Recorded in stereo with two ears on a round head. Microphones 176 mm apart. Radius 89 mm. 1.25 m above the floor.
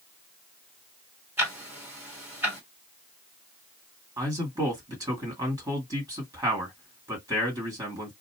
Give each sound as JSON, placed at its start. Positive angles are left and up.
{"t": 1.4, "sound": "ticking", "side_deg": -10, "distance_m": 1.8}
{"t": 4.2, "sound": "a man speaking", "side_deg": -15, "distance_m": 1.9}